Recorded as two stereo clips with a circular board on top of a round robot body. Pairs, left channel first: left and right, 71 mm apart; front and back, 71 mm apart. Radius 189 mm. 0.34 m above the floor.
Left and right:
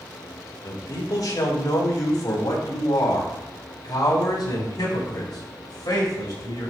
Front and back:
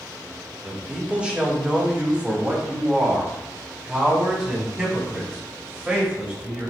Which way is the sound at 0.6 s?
105° left.